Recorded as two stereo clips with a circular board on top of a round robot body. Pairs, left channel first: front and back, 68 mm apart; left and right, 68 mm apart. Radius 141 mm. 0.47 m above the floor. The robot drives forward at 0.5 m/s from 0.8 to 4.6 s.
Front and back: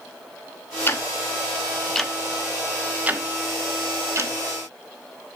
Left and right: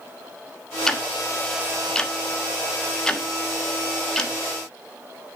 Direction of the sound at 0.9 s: 15° left.